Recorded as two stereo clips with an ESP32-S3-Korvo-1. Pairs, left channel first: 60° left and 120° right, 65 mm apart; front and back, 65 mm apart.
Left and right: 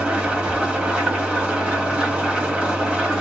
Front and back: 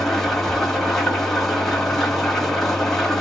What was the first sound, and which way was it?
An engine running, 85° right.